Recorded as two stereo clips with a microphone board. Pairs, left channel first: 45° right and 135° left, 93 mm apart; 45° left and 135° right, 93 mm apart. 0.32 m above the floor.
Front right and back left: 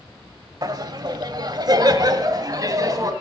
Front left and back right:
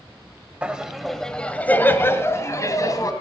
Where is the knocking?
No knocking in this recording.